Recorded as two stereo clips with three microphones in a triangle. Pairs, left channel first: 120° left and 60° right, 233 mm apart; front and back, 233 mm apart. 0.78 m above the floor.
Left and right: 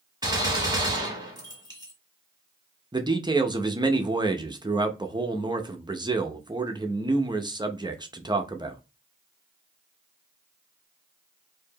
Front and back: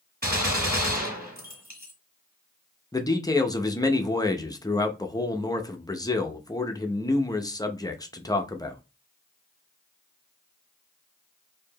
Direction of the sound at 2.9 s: 40° right.